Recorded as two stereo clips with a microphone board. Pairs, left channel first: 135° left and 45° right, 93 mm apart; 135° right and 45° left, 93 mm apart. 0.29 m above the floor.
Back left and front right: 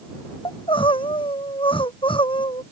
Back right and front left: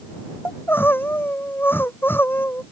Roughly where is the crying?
Behind left.